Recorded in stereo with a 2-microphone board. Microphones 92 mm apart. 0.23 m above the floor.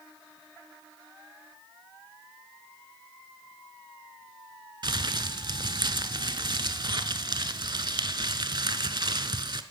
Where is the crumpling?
50° right (ahead or behind), 0.5 m.